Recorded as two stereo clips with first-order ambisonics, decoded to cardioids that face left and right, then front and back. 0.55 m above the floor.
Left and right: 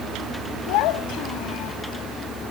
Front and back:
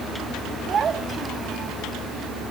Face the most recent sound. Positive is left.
turn(degrees=115)